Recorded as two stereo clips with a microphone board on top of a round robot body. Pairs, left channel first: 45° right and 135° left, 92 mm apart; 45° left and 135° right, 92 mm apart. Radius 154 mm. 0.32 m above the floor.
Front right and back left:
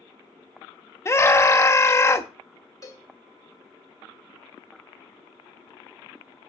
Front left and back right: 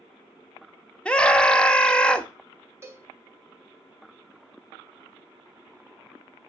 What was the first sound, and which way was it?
A scream, 25° right.